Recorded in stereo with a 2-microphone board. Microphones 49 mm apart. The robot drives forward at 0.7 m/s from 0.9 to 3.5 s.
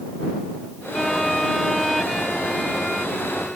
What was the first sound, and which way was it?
A violin, 5° left (ahead or behind).